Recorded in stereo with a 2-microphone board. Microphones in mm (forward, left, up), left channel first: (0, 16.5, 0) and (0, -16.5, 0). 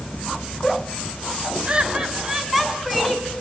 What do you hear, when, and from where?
1.6 s laughter: 25° right (ahead or behind), 3 m; by 3.3 s 10° left (ahead or behind), 4.5 m